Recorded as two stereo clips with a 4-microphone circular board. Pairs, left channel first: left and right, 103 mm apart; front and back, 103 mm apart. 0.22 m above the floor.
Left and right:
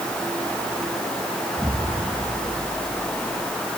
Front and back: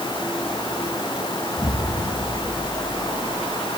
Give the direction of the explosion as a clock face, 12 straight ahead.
1 o'clock.